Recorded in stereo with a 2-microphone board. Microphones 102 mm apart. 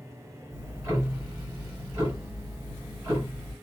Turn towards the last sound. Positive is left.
turn(degrees=-25)  # may be behind; listen again after turning